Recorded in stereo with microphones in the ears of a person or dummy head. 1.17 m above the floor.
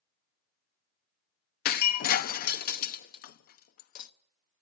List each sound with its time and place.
1.6 s breaking glass: 45° left (ahead or behind), 0.7 m